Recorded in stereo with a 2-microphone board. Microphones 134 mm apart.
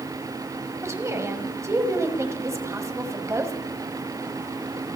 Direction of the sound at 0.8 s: 20° right (ahead or behind).